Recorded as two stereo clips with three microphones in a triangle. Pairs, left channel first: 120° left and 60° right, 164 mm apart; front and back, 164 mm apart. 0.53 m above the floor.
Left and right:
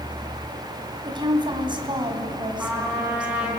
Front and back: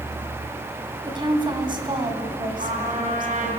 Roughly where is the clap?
I don't hear a clap.